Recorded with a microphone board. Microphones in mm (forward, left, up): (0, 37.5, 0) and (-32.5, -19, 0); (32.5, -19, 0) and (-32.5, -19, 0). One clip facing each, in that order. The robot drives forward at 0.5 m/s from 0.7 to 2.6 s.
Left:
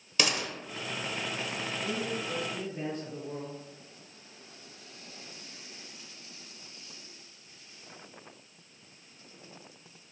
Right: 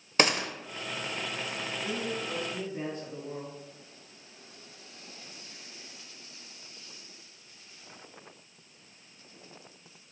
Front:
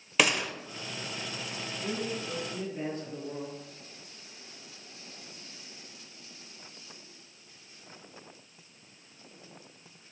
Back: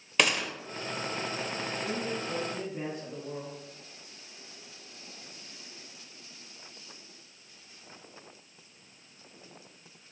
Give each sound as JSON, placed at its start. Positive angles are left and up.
{"t": 0.2, "sound": "a gunshot", "azimuth_deg": -90, "distance_m": 0.7}
{"t": 1.8, "sound": "a man speaking", "azimuth_deg": -165, "distance_m": 3.0}